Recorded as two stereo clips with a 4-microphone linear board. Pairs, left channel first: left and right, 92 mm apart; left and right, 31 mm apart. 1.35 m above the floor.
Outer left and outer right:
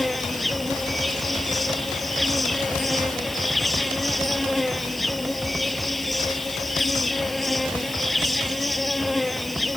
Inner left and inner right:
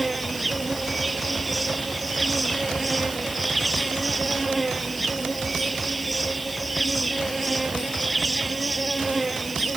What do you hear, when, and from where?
0.0 s an insect: centre (ahead or behind)